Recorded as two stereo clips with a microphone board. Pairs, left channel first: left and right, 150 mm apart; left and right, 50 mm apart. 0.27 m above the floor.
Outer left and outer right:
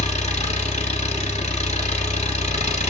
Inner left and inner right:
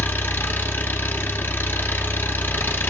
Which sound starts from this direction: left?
An engine running, at 0.0 s.